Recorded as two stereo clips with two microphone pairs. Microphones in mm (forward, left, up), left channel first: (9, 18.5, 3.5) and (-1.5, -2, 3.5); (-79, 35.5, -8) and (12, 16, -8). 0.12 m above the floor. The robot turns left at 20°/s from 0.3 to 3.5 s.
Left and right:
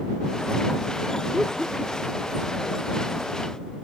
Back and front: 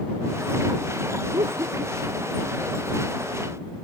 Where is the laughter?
5° right; by 2.3 s 25° right.